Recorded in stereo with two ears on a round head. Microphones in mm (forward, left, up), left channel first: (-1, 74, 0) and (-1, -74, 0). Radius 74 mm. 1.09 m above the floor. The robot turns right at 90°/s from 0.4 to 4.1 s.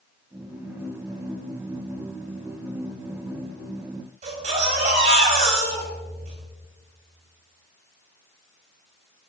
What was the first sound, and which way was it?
A baby crying, 45° right (ahead or behind).